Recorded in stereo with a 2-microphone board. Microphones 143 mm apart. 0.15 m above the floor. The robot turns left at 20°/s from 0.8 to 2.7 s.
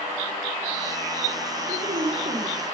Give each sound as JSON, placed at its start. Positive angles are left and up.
{"t": 1.7, "sound": "a woman speaking", "side_deg": -65, "distance_m": 4.0}